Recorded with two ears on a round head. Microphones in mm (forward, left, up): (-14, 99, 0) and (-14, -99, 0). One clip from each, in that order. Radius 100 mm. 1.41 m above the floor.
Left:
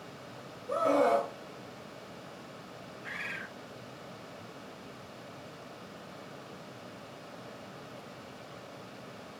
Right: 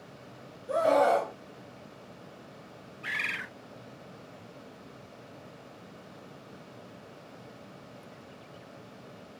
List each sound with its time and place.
0.7 s a scream: 15° right (ahead or behind), 0.8 m
3.0 s a bird: 70° right (ahead or behind), 0.6 m